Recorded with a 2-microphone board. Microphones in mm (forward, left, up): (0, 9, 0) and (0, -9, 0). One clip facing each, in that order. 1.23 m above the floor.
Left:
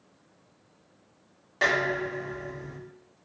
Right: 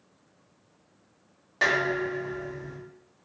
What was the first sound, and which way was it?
Dishes clattering, centre (ahead or behind).